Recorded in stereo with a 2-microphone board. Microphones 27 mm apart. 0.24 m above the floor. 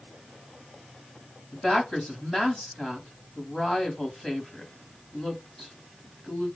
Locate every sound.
1.5 s a woman speaking: 25° left (ahead or behind), 1.2 m